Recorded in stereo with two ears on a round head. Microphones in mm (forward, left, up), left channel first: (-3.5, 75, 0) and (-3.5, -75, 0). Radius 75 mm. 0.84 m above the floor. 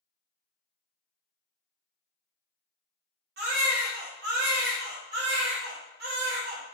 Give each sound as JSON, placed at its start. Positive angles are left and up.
{"t": 3.4, "sound": "a baby crying", "side_deg": -65, "distance_m": 1.2}